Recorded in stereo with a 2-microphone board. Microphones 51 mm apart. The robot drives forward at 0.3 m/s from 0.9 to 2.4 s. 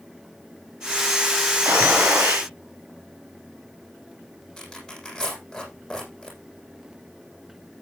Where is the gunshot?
50° right (ahead or behind), 5 m.